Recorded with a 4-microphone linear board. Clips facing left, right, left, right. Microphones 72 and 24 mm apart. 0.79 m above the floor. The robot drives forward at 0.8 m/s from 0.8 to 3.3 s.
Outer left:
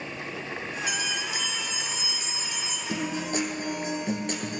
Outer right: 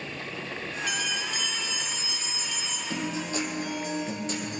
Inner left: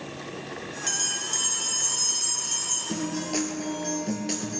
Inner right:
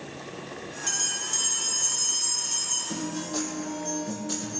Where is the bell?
15° left (ahead or behind), 4 m; by 2.8 s 25° left (ahead or behind), 2.5 m.